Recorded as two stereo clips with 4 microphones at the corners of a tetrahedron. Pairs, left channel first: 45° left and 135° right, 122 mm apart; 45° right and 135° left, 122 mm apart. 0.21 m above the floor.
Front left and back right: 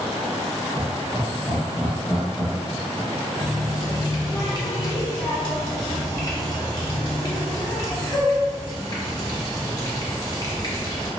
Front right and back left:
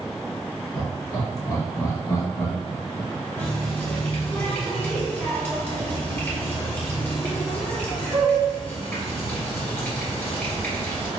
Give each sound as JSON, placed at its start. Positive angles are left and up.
{"t": 0.8, "sound": "laughter", "azimuth_deg": -105, "distance_m": 1.7}
{"t": 3.4, "sound": "a running tap", "azimuth_deg": 20, "distance_m": 1.1}